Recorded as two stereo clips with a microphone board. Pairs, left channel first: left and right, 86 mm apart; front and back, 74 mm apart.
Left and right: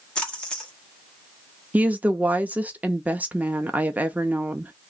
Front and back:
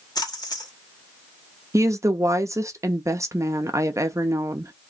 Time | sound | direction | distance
0.1 | a splash | 10° left | 1.1 m
1.7 | a woman speaking | 155° right | 0.5 m